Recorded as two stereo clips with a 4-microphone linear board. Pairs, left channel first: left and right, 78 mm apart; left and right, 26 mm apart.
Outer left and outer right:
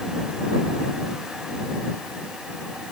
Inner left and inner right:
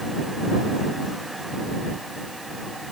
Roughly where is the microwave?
No microwave in this recording.